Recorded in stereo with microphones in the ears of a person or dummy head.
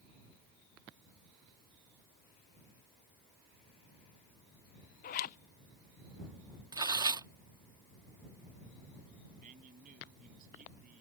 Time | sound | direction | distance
5.0 | a zipper | 45° left (ahead or behind) | ?
6.7 | tearing paper | 20° right (ahead or behind) | ?
9.4 | a man speaking | 40° right (ahead or behind) | ?